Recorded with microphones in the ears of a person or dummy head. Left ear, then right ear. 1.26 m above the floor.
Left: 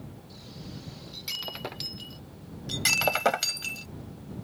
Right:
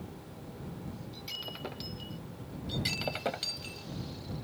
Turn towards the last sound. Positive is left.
turn(degrees=45)  # may be behind; listen again after turning